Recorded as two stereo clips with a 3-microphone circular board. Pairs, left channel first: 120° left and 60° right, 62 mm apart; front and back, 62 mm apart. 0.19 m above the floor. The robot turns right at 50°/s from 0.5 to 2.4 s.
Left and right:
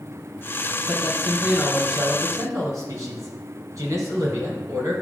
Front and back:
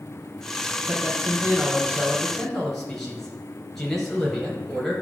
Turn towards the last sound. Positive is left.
turn(degrees=-85)